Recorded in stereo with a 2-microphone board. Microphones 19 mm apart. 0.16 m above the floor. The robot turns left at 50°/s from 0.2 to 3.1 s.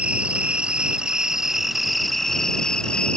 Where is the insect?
90° right; by 3.2 s 125° left.